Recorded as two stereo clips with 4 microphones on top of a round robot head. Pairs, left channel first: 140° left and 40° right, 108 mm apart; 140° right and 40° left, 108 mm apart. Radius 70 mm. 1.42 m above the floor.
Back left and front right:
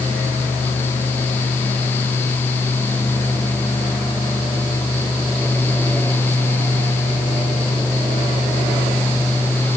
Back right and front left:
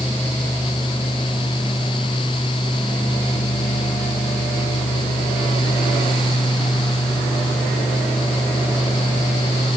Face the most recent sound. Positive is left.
No sound to turn to.